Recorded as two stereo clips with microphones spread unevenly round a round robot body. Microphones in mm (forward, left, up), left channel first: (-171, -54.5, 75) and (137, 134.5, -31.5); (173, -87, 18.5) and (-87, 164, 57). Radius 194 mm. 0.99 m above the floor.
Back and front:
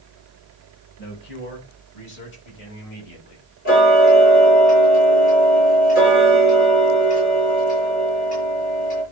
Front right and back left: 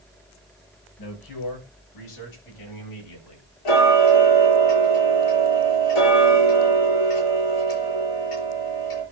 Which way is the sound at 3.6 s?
80° right.